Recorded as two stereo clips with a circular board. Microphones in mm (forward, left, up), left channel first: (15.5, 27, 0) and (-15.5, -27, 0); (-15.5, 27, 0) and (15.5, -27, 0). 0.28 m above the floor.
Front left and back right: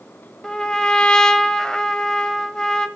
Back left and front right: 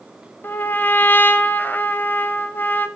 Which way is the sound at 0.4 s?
125° left.